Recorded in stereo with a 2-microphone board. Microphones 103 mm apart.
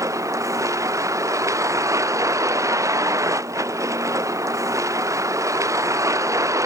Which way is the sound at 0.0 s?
30° right (ahead or behind).